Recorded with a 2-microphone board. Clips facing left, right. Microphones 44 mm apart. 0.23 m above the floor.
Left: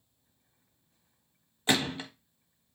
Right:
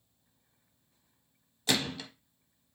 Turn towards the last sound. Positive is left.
turn(degrees=25)  # may be behind; listen again after turning